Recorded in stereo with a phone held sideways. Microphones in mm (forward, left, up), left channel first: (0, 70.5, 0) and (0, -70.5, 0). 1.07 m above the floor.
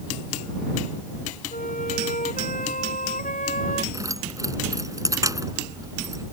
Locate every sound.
1.5 s a flute: 80° left
3.9 s keys jangling: 25° right (ahead or behind)